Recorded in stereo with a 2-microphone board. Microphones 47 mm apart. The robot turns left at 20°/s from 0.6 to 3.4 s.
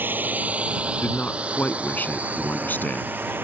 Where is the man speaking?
125° left; by 3.4 s 80° left.